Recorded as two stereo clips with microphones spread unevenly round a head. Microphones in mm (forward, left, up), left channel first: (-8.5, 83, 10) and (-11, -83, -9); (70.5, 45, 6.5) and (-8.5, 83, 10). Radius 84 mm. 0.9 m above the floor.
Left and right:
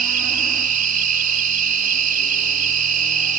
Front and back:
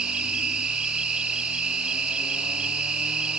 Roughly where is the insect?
Behind right.